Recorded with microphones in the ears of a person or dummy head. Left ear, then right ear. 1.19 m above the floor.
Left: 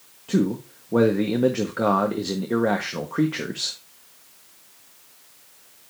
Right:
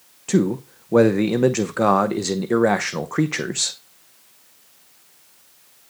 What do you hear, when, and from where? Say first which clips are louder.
0.3 s a man speaking: right 3 dB; 75° right (ahead or behind), 0.7 m